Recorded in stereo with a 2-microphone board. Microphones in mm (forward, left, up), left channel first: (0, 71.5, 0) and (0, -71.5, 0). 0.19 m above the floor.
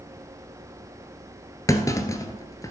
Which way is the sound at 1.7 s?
25° left (ahead or behind).